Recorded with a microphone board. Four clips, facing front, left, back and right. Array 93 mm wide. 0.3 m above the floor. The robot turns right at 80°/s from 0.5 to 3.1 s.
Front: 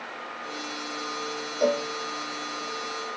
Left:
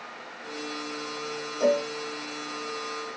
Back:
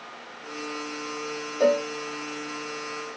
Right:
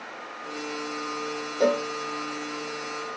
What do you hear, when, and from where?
1.6 s a cowbell: 140° right, 0.7 m; by 1.9 s 120° right, 0.7 m